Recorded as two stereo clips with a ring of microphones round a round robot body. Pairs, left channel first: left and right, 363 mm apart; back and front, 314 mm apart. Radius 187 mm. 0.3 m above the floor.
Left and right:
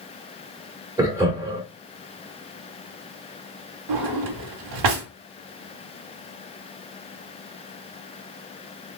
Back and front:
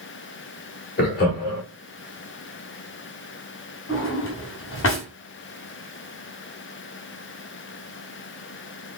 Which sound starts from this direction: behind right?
A drawer, at 3.9 s.